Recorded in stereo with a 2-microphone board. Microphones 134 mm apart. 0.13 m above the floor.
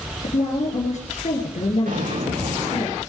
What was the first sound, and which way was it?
A woman speaking, 60° left (ahead or behind).